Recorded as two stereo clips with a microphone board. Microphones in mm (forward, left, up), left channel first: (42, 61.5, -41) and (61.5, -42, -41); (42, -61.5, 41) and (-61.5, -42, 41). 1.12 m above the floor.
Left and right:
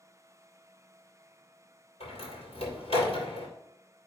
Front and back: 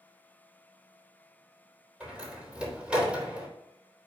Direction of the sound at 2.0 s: 90° left.